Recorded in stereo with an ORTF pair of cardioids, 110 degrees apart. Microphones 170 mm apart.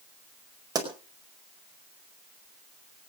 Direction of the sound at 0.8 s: 20° right.